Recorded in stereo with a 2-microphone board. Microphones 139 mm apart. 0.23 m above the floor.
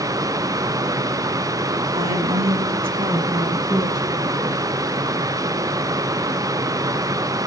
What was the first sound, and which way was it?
A woman speaking, 50° right (ahead or behind).